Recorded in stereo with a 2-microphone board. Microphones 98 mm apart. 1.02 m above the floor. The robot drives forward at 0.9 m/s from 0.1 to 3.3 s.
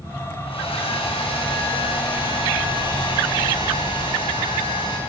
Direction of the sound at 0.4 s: 75° left (ahead or behind).